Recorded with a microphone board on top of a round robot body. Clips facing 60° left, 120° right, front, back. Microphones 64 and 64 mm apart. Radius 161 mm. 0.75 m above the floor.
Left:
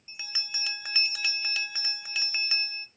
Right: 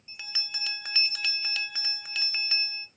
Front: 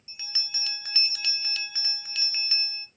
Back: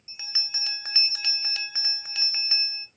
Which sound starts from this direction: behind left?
A bell, at 0.1 s.